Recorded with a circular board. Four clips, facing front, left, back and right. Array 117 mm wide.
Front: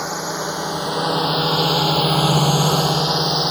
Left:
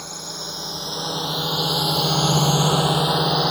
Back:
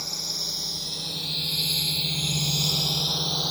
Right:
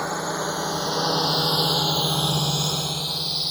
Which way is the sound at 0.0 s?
35° right.